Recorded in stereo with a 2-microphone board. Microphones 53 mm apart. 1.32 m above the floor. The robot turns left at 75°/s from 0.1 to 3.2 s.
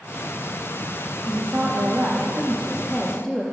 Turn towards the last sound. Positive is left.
turn(degrees=170)